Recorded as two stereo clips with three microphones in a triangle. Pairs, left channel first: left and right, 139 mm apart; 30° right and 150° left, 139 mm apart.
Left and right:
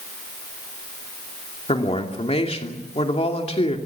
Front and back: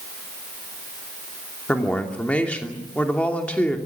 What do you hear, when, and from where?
1.7 s a woman speaking: 50° left, 2.5 m